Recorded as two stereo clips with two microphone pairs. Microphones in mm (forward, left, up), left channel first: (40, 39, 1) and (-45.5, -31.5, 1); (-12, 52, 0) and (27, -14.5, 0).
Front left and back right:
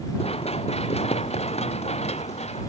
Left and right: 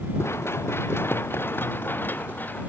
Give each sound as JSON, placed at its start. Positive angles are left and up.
{"t": 0.2, "sound": "running footsteps", "azimuth_deg": 65}